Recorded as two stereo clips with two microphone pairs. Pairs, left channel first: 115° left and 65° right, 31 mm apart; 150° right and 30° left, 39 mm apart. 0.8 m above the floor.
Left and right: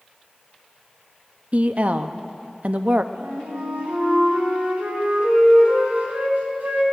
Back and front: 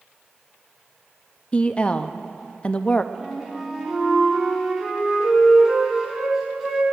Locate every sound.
1.5 s a woman speaking: 95° right, 0.6 m
3.1 s a flute: 50° right, 3 m